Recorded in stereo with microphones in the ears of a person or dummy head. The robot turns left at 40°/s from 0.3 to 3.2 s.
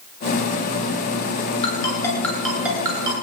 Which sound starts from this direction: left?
A ringtone, at 1.6 s.